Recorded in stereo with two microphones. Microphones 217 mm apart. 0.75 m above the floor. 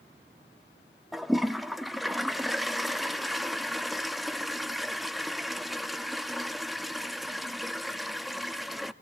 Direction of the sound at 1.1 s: Centre (ahead or behind).